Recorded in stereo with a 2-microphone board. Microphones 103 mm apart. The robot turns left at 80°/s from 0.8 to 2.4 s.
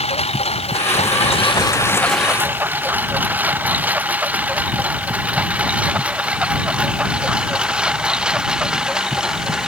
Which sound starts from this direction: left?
A lawn mower, at 0.0 s.